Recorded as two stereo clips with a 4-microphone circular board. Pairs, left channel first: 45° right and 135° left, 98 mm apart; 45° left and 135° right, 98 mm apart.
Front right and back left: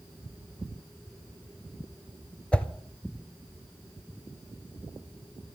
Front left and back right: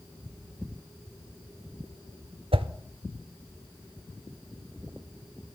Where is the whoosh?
125° right, 0.7 m.